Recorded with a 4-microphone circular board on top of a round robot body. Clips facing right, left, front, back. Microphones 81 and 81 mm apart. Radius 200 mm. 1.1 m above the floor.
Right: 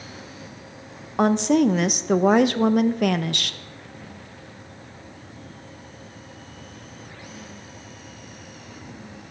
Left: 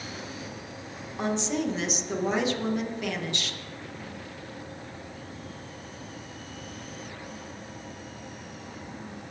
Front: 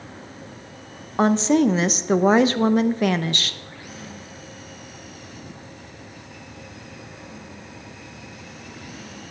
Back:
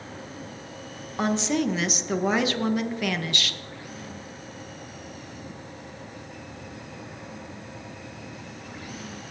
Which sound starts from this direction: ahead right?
A woman speaking, at 1.2 s.